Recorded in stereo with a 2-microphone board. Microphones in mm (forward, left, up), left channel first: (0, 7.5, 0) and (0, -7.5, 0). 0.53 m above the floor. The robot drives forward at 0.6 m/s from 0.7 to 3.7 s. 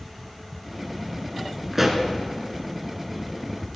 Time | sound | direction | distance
1.7 | a pop | 10° right (ahead or behind) | 1.5 m